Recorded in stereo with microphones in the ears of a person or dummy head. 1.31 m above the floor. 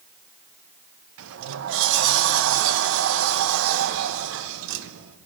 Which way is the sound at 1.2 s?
70° right (ahead or behind).